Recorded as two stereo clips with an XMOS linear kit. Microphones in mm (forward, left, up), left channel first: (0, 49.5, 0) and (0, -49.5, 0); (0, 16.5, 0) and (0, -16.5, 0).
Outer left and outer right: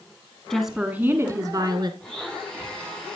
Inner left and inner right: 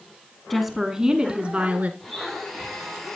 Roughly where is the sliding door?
No sliding door in this recording.